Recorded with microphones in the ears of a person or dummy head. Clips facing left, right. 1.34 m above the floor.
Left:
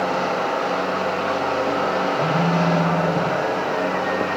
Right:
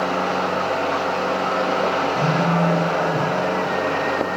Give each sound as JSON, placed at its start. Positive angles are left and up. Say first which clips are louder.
{"t": 2.1, "sound": "a phone buzzing", "louder": "even", "side_deg": -30, "distance_m": 4.5}